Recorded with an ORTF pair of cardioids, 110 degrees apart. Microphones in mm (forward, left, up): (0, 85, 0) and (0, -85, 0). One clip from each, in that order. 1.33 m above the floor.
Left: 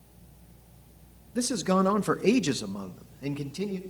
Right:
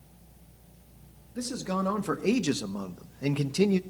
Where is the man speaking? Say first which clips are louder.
Left 6 dB; 40° left, 1.9 m; by 3.8 s 50° right, 1.5 m.